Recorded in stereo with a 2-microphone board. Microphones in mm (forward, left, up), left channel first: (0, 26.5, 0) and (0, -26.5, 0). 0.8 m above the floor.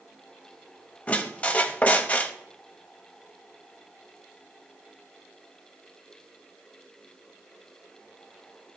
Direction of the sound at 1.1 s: 25° left (ahead or behind).